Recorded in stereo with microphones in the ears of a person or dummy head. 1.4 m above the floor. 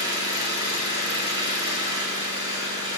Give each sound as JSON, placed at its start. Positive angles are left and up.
{"t": 0.0, "sound": "an engine running", "side_deg": -20, "distance_m": 5.5}